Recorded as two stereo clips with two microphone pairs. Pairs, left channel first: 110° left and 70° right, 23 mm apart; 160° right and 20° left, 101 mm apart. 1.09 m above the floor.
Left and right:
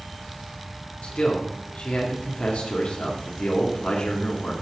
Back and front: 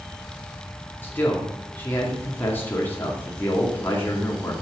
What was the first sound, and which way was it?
A man speaking, 130° left.